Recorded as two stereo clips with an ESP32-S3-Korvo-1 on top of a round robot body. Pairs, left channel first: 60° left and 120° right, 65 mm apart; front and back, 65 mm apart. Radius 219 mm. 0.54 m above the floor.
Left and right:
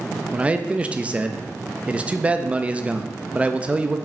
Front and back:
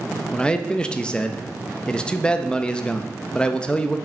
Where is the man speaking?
65° right, 1.2 m.